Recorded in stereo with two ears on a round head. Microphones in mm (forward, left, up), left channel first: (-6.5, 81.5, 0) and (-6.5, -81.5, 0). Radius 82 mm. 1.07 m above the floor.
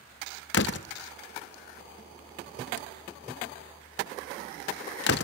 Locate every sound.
0.5 s a door slam: 65° left (ahead or behind), 0.6 m